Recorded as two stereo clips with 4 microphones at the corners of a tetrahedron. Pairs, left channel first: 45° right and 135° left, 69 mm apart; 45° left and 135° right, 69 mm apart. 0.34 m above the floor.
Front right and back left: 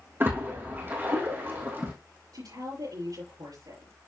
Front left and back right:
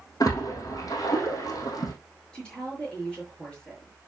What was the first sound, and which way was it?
A splash, 75° left.